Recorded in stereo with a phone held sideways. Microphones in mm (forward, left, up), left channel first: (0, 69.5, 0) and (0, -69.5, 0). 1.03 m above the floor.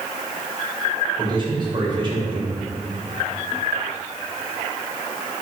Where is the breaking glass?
I don't hear breaking glass.